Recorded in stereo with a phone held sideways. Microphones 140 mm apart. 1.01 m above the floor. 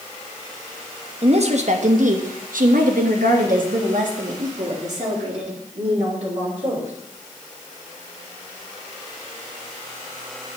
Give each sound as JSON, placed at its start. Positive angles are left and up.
{"t": 1.2, "sound": "a woman speaking", "side_deg": -45, "distance_m": 1.2}